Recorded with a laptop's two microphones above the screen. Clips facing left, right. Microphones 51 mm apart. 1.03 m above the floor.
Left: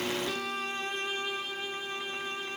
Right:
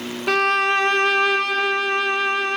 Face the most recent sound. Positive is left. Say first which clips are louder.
# right 16 dB
turn(degrees=-70)  # may be behind; listen again after turning